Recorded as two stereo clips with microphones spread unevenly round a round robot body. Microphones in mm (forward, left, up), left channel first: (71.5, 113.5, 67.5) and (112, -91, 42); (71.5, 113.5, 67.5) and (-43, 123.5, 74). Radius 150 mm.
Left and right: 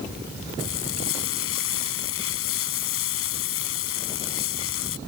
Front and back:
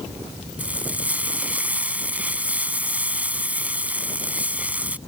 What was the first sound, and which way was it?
Frying, 100° left.